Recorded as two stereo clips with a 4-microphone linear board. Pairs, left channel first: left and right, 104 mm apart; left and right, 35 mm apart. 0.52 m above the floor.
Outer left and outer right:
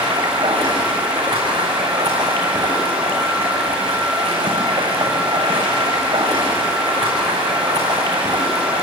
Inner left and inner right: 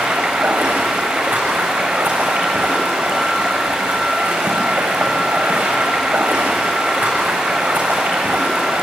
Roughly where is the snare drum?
I don't hear a snare drum.